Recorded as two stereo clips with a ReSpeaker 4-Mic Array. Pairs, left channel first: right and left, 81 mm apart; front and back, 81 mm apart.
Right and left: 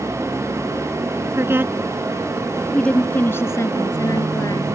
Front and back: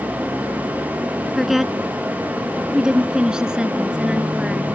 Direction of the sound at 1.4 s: 95° left.